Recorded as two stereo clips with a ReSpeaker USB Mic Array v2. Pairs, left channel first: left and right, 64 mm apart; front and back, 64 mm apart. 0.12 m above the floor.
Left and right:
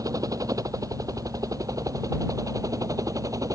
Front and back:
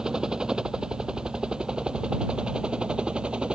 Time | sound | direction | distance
0.0 | a helicopter | 105° right | ?